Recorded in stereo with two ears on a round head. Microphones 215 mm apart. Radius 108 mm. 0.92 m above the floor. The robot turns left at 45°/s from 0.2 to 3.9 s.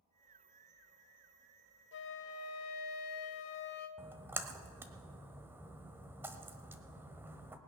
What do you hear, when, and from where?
1.9 s a flute: 130° left, 1.1 m; by 3.9 s 40° left, 1.1 m
4.0 s a splash: 10° right (ahead or behind), 1.0 m